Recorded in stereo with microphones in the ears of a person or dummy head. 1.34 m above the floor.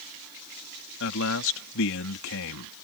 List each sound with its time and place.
1.0 s a man speaking: 75° left (ahead or behind)